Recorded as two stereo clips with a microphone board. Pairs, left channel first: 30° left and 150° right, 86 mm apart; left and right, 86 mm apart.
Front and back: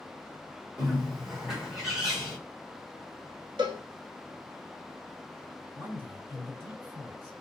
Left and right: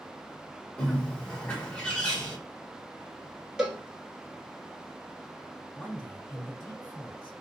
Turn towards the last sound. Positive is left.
turn(degrees=155)